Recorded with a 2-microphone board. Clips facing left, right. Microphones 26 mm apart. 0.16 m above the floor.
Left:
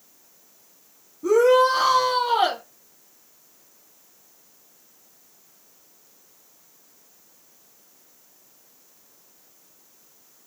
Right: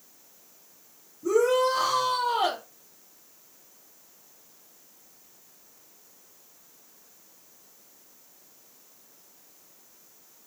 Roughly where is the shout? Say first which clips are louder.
Left 6 dB; left.